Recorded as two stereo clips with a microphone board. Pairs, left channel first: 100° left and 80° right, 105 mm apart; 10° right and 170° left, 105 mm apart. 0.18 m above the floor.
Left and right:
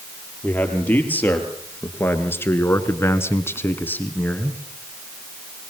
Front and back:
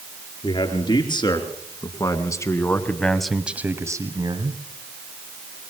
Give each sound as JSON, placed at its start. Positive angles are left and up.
{"t": 0.4, "sound": "a man speaking", "azimuth_deg": 25, "distance_m": 5.0}